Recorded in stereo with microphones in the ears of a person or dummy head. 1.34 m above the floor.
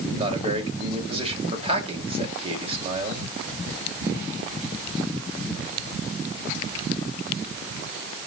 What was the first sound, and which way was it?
A man speaking, 35° right (ahead or behind).